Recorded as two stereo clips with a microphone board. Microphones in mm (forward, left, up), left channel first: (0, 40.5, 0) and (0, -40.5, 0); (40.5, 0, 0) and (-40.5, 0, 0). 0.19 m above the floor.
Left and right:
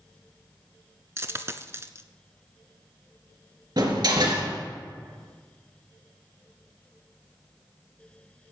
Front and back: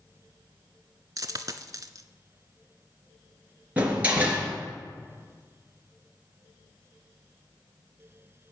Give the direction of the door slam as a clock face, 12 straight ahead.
4 o'clock.